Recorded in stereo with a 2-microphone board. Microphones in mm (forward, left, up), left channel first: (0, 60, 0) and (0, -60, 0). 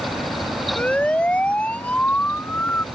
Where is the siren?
10° left (ahead or behind); by 2.9 s 15° left (ahead or behind).